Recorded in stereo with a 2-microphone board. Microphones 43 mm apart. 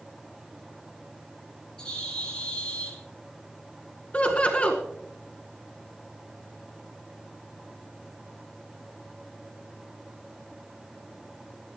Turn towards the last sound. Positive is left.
turn(degrees=35)  # may be behind; listen again after turning